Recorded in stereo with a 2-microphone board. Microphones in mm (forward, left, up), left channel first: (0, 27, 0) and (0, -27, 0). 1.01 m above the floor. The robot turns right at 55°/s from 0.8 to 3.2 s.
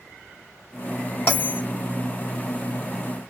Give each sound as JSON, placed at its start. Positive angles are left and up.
{"t": 1.3, "sound": "a bell", "side_deg": 35, "distance_m": 2.5}